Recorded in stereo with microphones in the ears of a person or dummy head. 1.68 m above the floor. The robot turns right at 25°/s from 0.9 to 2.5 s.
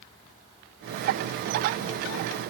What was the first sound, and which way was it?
Only background noise.